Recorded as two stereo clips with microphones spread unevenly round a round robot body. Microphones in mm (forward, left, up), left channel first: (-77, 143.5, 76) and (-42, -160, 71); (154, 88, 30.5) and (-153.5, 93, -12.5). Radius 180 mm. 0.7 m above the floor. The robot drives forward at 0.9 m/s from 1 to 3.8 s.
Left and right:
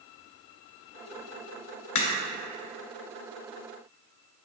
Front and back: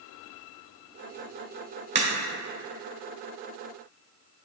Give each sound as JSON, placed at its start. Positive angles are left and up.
{"t": 1.9, "sound": "a crack", "azimuth_deg": 115, "distance_m": 1.9}